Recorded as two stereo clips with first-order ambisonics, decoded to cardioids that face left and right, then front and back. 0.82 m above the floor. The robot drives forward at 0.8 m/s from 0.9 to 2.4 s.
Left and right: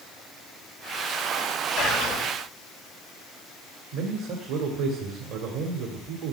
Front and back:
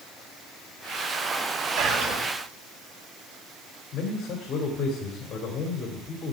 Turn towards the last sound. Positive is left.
turn(degrees=-60)